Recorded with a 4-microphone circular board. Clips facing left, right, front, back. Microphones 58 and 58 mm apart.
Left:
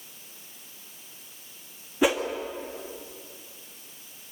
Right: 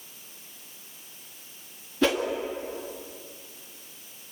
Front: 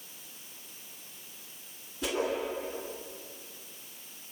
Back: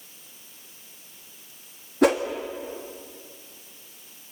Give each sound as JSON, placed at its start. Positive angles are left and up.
{"t": 2.0, "sound": "a whoosh", "azimuth_deg": 165, "distance_m": 2.5}